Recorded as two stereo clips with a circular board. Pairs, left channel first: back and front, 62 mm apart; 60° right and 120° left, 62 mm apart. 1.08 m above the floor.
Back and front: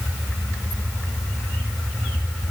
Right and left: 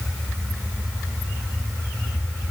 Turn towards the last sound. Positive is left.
No sound to turn to.